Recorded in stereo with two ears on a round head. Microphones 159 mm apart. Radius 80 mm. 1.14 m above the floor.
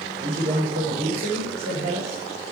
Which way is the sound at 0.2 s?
35° right (ahead or behind).